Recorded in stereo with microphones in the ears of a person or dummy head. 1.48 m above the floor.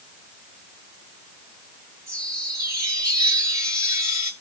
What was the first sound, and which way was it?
A chime, 15° right (ahead or behind).